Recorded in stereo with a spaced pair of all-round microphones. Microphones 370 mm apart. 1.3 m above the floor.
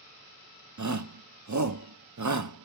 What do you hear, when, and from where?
0.8 s a shout: 50° right (ahead or behind), 0.6 m